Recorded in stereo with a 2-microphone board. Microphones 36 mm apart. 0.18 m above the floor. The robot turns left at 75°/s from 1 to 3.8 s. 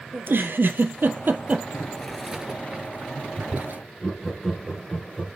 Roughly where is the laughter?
Centre.